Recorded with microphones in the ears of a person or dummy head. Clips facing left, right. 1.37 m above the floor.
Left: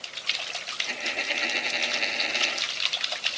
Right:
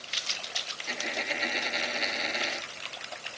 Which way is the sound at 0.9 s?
5° right (ahead or behind).